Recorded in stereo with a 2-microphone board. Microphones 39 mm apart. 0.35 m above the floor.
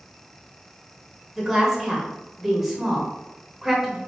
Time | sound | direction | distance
1.4 | a woman speaking | 5° right (ahead or behind) | 1.0 m